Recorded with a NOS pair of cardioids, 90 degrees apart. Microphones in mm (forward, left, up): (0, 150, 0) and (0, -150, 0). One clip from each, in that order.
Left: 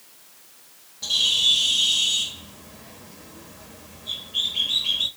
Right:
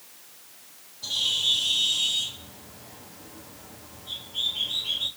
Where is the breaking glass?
No breaking glass in this recording.